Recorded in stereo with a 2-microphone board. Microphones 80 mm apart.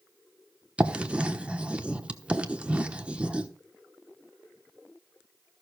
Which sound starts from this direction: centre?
Writing, at 0.8 s.